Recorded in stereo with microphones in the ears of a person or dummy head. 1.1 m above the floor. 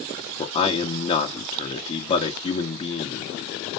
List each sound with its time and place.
0.4 s a man speaking: 30° left (ahead or behind), 1.4 m